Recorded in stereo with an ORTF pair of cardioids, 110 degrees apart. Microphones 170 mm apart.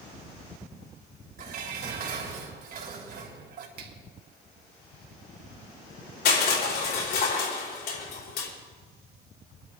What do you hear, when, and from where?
1.4 s dishes clattering: 65° right, 4 m
3.8 s a finger snap: 65° right, 2.5 m
6.2 s crushing: 65° left, 4.5 m